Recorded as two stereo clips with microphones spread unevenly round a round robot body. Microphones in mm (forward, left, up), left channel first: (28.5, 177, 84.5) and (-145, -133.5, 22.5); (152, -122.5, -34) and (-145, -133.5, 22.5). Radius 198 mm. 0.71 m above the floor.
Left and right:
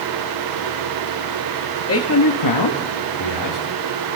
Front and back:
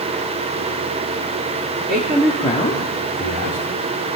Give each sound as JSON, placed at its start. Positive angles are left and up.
{"t": 1.9, "sound": "a man speaking", "azimuth_deg": 115, "distance_m": 1.6}